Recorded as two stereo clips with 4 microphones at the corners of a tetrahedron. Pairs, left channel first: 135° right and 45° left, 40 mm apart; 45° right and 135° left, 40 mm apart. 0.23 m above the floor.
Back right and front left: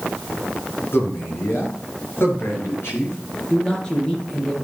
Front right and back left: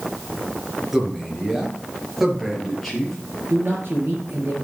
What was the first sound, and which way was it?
A man speaking, 145° right.